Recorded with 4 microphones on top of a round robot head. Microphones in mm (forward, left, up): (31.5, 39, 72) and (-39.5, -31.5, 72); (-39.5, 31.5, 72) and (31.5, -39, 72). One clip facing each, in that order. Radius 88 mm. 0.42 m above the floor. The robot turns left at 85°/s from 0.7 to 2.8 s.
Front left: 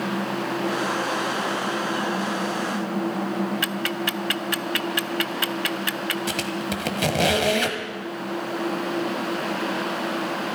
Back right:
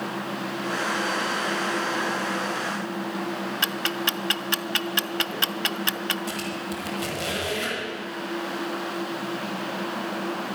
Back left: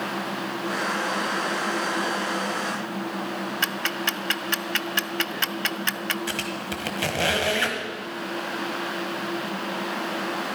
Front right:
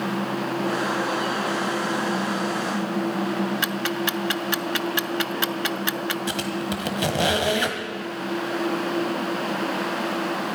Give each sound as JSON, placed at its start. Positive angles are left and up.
{"t": 3.6, "sound": "ticking", "azimuth_deg": -115, "distance_m": 0.5}
{"t": 6.3, "sound": "a squeak", "azimuth_deg": 25, "distance_m": 1.5}